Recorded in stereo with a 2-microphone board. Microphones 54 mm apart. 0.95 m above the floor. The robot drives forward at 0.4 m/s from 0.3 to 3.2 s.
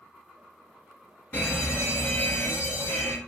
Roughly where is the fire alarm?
Left.